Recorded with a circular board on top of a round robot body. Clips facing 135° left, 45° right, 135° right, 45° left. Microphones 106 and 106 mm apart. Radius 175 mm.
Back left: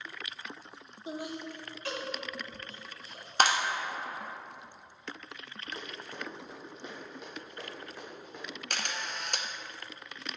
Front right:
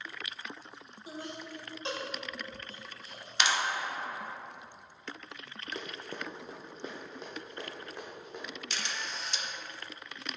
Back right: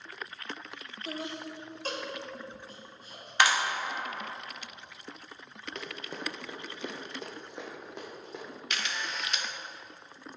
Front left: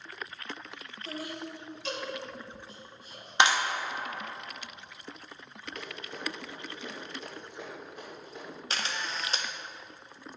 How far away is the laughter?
About 1.0 m.